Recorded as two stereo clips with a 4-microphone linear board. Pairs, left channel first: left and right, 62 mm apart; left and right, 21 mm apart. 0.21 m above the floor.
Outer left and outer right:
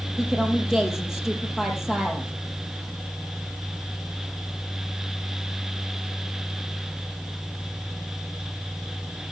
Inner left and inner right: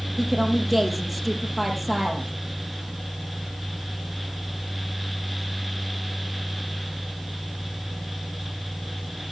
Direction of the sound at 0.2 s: 10° right (ahead or behind).